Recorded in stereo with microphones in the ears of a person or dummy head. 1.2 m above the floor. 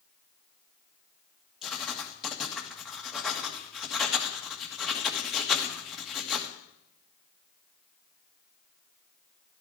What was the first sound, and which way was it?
Writing, 5° right (ahead or behind).